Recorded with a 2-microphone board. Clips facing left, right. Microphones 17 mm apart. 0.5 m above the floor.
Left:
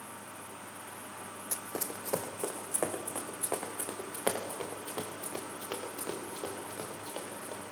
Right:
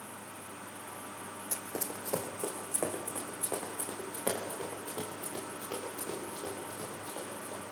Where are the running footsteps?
5° left (ahead or behind), 1.6 m; by 7.6 s 40° left (ahead or behind), 6 m.